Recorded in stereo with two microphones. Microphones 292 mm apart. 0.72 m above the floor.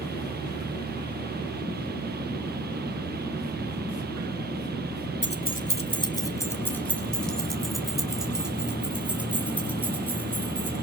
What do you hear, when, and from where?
5.2 s keys jangling: 40° left (ahead or behind), 1.2 m; by 10.7 s 5° right (ahead or behind), 7.5 m